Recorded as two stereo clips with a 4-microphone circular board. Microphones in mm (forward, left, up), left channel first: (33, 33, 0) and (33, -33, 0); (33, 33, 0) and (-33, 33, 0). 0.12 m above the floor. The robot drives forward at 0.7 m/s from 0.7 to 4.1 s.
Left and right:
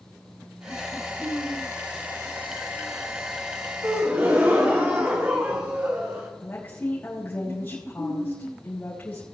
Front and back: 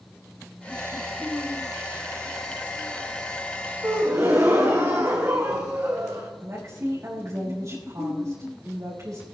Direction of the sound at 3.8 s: 135° right.